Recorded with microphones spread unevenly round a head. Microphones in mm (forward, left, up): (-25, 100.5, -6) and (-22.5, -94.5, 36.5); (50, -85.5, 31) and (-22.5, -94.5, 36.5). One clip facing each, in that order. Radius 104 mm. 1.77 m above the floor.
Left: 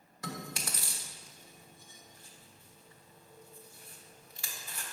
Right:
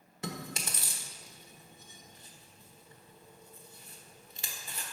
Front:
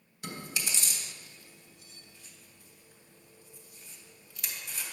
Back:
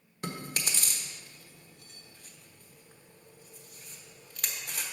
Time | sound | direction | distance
0.2 | chewing | 145° right | 1.1 m